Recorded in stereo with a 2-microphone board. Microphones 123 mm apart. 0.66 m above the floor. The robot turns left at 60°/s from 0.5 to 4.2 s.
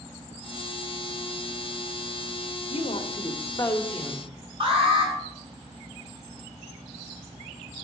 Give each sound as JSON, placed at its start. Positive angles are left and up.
{"t": 2.7, "sound": "a woman speaking", "azimuth_deg": 85, "distance_m": 1.4}
{"t": 4.6, "sound": "an alarm", "side_deg": -45, "distance_m": 7.0}